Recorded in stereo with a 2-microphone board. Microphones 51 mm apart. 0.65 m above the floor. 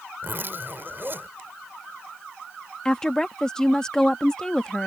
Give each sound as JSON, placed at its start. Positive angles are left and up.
{"t": 0.2, "sound": "a zipper", "side_deg": -45}
{"t": 2.9, "sound": "a woman speaking", "side_deg": 10}